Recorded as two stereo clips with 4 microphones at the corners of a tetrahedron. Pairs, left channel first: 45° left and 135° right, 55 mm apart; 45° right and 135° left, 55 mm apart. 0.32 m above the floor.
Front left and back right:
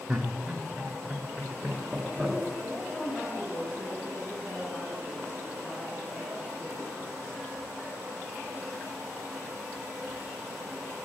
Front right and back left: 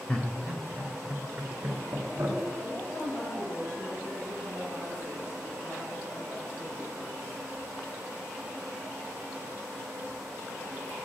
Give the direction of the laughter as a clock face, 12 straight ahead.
2 o'clock.